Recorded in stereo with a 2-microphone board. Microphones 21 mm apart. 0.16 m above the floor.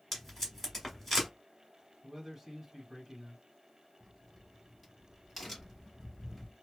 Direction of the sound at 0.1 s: 15° left (ahead or behind).